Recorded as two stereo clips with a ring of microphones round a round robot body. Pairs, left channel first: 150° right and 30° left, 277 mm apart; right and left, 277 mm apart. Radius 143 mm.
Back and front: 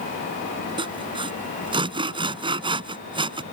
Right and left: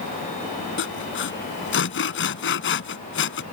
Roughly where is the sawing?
Ahead right.